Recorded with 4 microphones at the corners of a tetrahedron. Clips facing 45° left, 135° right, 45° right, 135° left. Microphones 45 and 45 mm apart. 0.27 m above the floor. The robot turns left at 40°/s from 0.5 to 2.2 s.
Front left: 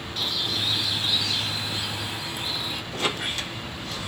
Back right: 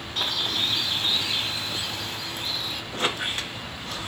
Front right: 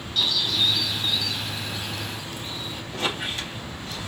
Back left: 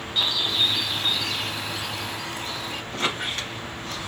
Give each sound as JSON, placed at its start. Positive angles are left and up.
{"t": 0.2, "sound": "a bird", "azimuth_deg": -165, "distance_m": 0.5}
{"t": 2.9, "sound": "a squeak", "azimuth_deg": 175, "distance_m": 2.5}